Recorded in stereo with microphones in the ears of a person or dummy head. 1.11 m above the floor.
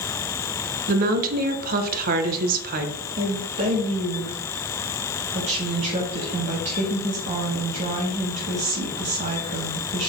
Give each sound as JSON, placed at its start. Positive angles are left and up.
{"t": 0.9, "sound": "a woman speaking", "side_deg": -45, "distance_m": 0.9}
{"t": 3.2, "sound": "a woman speaking", "side_deg": -35, "distance_m": 1.6}